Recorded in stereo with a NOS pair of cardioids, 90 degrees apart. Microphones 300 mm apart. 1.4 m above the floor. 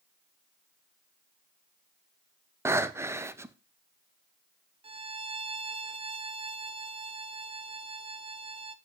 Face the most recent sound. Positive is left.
turn(degrees=-20)